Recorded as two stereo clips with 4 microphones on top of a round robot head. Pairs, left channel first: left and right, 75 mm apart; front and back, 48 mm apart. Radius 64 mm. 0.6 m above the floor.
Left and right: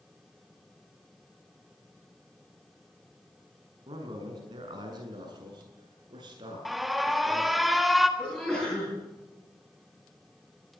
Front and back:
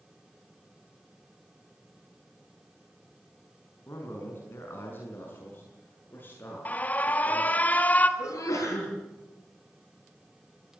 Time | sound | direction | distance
3.9 | a man speaking | 50° right | 6 m
6.7 | an alarm | straight ahead | 1.6 m
8.2 | a sneeze | straight ahead | 8.5 m